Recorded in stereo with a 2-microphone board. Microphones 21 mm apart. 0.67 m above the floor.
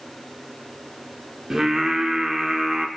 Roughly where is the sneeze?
I don't hear a sneeze.